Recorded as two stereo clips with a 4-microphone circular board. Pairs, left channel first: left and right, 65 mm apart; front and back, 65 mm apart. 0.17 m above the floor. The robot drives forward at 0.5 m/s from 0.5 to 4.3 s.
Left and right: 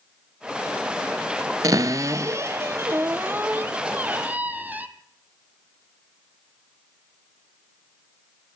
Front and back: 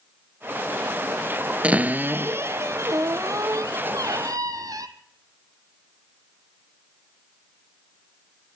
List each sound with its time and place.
1.6 s a cupboard door: 110° right, 0.8 m; by 4.9 s 155° right, 1.8 m